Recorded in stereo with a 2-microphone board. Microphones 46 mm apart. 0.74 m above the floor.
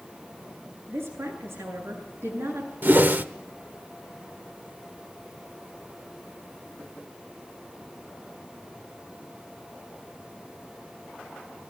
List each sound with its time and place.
0.9 s a woman speaking: 70° right (ahead or behind), 9.5 m
2.8 s a whoosh: 45° right (ahead or behind), 0.9 m